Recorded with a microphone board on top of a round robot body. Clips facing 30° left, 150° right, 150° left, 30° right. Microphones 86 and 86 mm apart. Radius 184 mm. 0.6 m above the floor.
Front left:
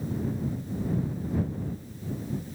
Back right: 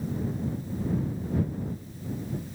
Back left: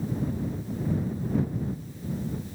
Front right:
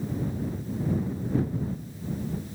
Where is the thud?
No thud in this recording.